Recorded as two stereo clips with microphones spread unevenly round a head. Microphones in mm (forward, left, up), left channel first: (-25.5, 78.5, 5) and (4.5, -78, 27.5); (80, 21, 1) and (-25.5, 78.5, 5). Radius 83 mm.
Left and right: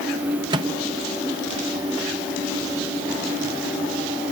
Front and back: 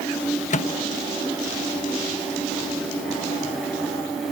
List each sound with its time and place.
0.5 s a microwave: 15° right